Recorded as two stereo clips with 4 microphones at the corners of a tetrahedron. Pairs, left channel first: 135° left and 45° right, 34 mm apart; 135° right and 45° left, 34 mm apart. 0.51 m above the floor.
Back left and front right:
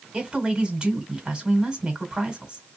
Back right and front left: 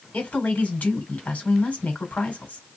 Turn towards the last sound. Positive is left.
turn(degrees=-100)